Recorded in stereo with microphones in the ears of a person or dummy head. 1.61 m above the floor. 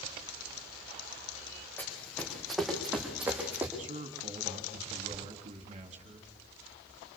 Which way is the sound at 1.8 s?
10° left (ahead or behind).